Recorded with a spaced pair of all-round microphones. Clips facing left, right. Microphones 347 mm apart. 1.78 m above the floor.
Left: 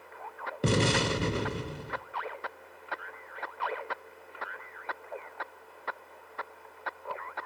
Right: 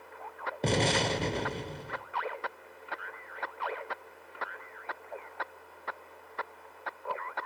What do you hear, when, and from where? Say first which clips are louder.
0.6 s an explosion: left 2 dB; 15° left (ahead or behind), 1.0 m